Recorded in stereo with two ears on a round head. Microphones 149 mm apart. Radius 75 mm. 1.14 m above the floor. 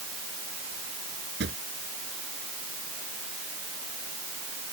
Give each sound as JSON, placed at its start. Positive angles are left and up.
{"t": 1.4, "sound": "a drawer", "side_deg": -75}